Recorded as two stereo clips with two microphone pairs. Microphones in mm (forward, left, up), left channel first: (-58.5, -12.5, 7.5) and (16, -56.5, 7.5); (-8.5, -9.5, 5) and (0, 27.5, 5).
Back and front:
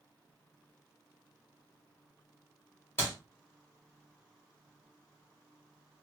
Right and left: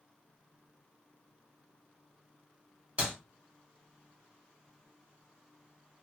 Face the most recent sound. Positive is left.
turn(degrees=100)